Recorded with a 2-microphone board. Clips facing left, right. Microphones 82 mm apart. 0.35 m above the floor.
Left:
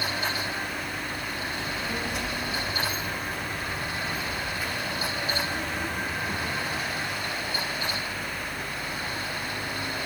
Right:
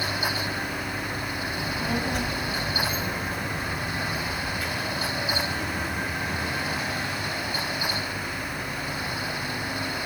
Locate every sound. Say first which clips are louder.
1.5 s a child speaking: right 6 dB; 50° right (ahead or behind), 1.8 m; by 6.8 s 25° left (ahead or behind), 3 m